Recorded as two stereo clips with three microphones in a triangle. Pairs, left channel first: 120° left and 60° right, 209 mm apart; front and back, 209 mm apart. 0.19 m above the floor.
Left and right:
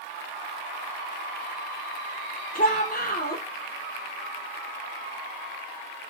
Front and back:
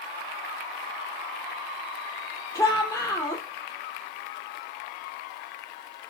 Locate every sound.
2.5 s a shout: 75° left, 5 m